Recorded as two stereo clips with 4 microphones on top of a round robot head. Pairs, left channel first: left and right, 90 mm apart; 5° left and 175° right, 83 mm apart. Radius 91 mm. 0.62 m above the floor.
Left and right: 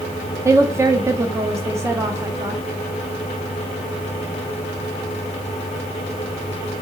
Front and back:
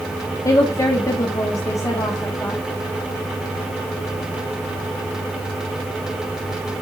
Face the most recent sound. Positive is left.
turn(degrees=-40)